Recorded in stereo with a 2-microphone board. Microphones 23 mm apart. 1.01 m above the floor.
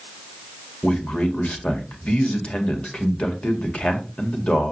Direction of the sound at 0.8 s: 60° left (ahead or behind).